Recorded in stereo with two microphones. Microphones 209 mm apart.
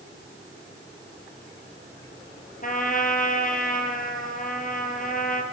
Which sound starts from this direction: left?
A trumpet, at 2.6 s.